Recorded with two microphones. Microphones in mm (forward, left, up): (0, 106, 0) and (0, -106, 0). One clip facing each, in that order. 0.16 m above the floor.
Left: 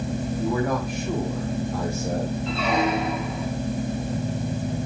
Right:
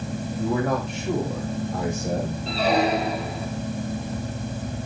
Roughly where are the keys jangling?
No keys jangling in this recording.